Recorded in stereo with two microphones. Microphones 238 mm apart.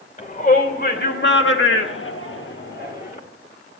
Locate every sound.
0.2 s a shout: 35° left (ahead or behind), 2.5 m